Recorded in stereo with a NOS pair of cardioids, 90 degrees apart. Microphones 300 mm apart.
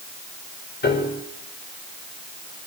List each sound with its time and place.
0.8 s a piano: 35° left, 8 m